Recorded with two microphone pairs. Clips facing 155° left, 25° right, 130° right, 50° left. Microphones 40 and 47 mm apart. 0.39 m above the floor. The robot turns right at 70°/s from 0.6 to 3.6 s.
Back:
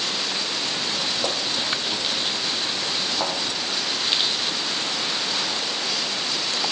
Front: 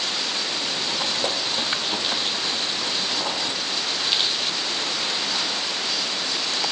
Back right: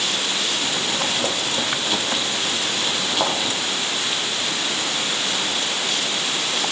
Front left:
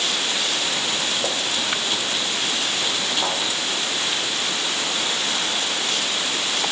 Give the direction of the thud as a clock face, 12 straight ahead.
4 o'clock.